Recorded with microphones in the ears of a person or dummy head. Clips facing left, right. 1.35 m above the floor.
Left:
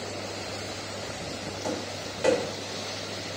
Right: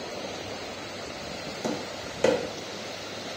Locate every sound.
1.6 s tapping: 60° right (ahead or behind), 0.8 m